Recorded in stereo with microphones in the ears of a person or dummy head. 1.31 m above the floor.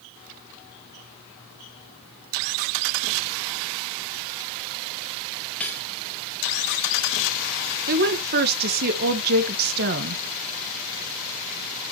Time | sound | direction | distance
5.6 | cutlery clinking | 10° left (ahead or behind) | 0.5 m
7.9 | a woman speaking | 50° right (ahead or behind) | 1.5 m